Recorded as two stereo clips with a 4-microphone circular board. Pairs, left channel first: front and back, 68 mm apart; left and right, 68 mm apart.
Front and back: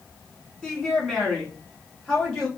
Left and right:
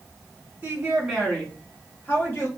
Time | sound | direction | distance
0.6 | a woman speaking | 75° right | 1.2 m